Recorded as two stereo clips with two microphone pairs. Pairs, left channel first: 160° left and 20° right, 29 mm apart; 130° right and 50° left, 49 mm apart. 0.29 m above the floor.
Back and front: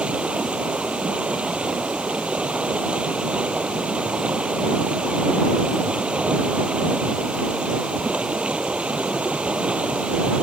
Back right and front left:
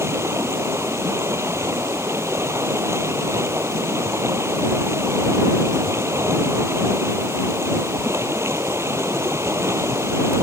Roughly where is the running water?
Ahead left.